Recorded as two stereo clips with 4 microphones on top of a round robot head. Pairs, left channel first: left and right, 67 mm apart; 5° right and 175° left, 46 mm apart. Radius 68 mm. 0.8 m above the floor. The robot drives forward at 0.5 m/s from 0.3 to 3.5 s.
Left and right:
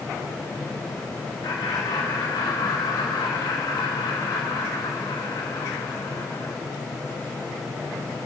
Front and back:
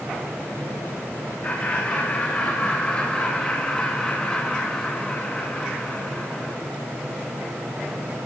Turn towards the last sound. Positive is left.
turn(degrees=60)